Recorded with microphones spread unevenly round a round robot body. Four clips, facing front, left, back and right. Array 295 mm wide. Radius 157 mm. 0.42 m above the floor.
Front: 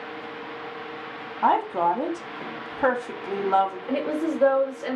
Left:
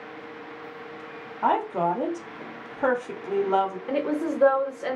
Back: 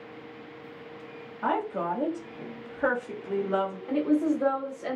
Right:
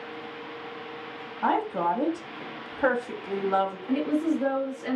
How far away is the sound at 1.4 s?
About 1.5 m.